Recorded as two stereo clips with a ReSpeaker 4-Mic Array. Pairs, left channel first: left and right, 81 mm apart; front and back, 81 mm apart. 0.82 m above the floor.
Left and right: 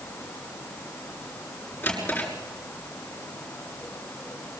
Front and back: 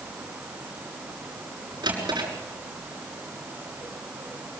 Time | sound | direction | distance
1.8 | a drawer | 155° left | 6 m